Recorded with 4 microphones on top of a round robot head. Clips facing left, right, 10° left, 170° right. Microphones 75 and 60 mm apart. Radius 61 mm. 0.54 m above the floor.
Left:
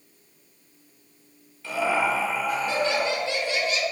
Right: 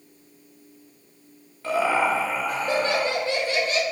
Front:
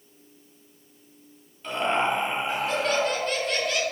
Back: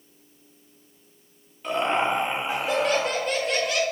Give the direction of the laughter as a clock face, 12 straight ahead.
3 o'clock.